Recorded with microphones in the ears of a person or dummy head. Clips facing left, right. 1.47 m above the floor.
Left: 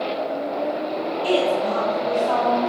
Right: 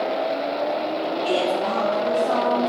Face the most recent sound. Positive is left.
turn(degrees=-40)  # may be behind; listen again after turning